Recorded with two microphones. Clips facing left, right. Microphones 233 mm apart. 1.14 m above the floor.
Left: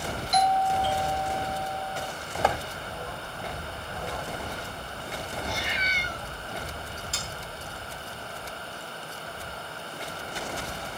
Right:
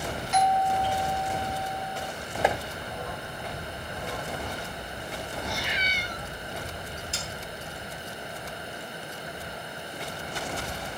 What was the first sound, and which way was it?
A doorbell, 40° left (ahead or behind).